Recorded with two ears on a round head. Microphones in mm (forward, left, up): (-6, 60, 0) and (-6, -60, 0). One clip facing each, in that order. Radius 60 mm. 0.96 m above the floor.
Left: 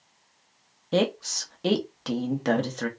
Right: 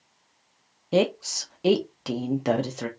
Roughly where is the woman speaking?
Centre.